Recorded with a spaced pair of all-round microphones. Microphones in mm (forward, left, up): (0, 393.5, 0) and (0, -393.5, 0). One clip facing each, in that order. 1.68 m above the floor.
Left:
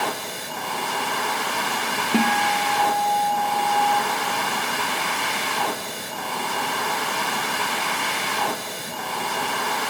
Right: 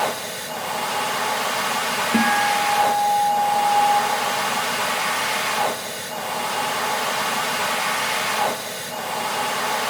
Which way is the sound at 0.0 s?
20° right (ahead or behind).